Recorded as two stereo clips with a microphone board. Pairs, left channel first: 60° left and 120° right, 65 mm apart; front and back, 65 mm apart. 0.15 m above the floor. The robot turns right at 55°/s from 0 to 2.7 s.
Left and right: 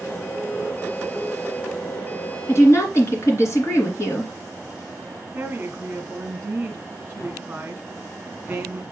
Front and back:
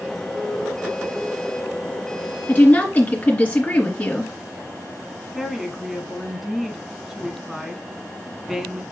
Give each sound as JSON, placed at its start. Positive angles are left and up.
{"t": 2.5, "sound": "a woman speaking", "azimuth_deg": 45, "distance_m": 2.5}
{"t": 5.3, "sound": "a woman speaking", "azimuth_deg": -100, "distance_m": 1.1}